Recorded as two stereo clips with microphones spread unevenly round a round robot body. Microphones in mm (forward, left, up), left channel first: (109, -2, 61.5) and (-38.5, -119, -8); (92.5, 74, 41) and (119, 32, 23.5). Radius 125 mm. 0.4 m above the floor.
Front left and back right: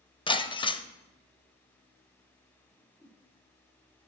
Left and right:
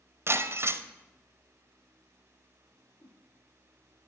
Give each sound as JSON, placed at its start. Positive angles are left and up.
{"t": 0.3, "sound": "breaking glass", "azimuth_deg": -35, "distance_m": 0.8}
{"t": 2.7, "sound": "a whoosh", "azimuth_deg": 120, "distance_m": 2.5}